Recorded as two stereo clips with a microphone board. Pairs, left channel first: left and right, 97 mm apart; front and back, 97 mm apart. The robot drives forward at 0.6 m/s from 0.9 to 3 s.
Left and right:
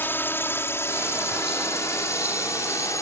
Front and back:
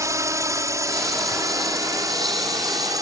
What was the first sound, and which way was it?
A drone, 145° left.